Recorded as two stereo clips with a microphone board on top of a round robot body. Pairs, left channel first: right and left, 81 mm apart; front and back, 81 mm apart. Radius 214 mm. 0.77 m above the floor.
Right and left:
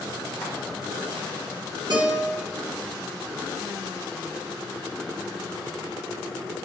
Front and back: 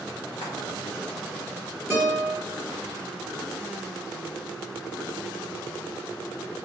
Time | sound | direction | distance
0.4 | frying | 160° right | 1.0 m
1.9 | a guitar | 120° left | 1.7 m